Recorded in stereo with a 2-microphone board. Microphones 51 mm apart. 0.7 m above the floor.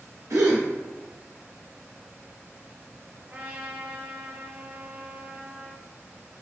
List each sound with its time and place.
0.3 s a gasp: 90° right, 0.9 m
3.2 s a trumpet: 40° right (ahead or behind), 1.0 m